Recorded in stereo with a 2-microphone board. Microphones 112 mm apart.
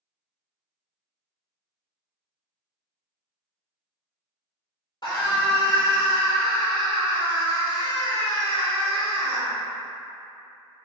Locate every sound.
5.0 s a scream: 50° left (ahead or behind), 1.0 m